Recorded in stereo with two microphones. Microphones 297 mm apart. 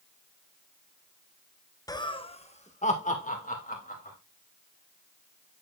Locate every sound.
1.9 s laughter: 10° left (ahead or behind), 0.8 m; by 4.2 s 30° left (ahead or behind), 3 m